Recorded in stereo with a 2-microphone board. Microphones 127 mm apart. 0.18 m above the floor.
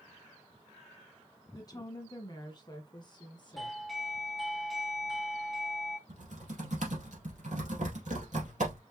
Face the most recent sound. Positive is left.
turn(degrees=-70)  # may be behind; listen again after turning